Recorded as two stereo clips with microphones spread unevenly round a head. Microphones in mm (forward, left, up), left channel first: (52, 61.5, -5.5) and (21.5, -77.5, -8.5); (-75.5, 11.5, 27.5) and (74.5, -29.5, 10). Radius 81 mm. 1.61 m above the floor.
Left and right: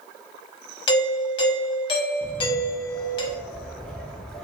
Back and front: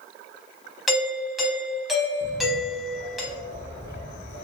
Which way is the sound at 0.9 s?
60° left.